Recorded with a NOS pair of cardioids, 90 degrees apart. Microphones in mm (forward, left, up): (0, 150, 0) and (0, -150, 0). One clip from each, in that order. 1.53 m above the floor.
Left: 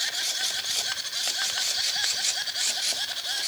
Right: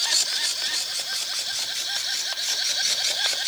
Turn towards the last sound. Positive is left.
No sound to turn to.